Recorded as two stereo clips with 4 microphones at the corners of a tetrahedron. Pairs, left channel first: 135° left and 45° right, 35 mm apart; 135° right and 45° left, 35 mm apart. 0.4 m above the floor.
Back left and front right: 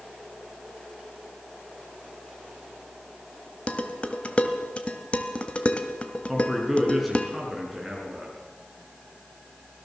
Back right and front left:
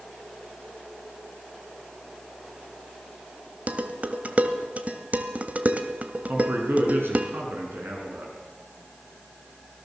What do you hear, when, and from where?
3.7 s dishes clattering: 85° left, 1.5 m
6.3 s a man speaking: 45° left, 6 m